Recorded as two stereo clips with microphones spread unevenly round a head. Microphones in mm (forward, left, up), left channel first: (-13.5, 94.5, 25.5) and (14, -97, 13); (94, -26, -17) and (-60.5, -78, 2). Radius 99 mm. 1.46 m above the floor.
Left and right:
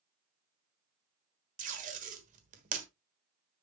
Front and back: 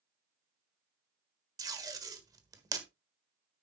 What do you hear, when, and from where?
1.6 s tape being pulled: 115° right, 1.4 m